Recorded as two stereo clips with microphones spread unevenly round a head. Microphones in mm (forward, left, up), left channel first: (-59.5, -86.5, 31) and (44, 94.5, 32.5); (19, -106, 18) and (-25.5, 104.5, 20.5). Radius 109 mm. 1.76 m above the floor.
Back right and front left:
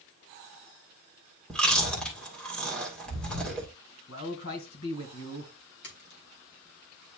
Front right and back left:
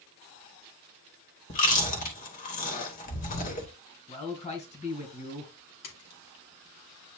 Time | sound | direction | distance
1.5 | chewing | 35° right | 2 m
4.1 | a man speaking | 140° right | 2 m
5.8 | a splash | 80° right | 2.5 m